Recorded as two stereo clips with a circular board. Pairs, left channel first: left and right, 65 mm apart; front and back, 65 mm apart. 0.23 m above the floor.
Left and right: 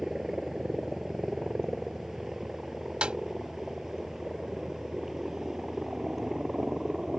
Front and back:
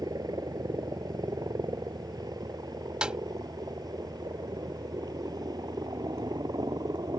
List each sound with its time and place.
0.0 s a helicopter: 175° right
3.0 s a snare drum: 135° right